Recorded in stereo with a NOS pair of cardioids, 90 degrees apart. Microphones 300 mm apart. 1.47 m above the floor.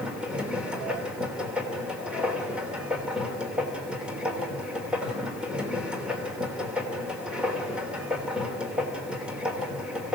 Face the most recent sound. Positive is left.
turn(degrees=-5)